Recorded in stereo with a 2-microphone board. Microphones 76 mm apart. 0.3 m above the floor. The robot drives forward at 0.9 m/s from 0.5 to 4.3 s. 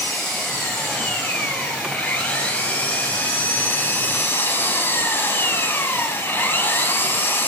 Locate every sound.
0.0 s an engine running: 15° left (ahead or behind), 5.5 m; by 7.5 s 30° left (ahead or behind), 2.5 m